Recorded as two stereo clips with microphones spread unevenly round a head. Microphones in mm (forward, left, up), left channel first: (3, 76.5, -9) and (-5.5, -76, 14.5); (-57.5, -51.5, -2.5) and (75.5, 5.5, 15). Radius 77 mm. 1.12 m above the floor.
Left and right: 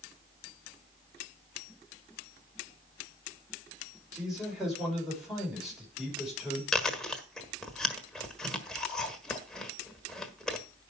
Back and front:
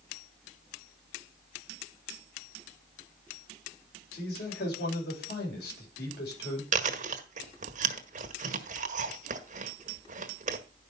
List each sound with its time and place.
4.1 s a man speaking: straight behind, 6 m
6.7 s chewing: 5° right, 1.5 m